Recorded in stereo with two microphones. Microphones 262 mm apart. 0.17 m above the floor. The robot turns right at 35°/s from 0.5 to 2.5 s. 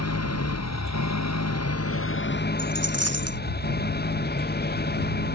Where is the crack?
No crack in this recording.